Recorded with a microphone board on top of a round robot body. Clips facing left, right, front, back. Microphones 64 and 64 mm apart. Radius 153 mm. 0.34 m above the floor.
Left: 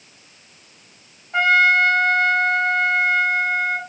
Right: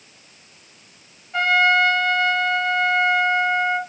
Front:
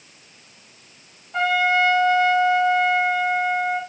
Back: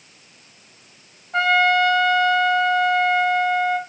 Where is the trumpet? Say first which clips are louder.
Left 2 dB, back 2 dB; 155° left, 2.5 m.